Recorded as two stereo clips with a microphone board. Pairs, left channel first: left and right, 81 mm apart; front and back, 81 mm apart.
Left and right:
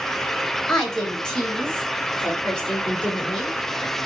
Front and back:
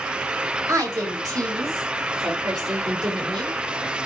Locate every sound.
0.7 s a woman speaking: 170° left, 1.7 m; by 3.6 s 165° left, 3.5 m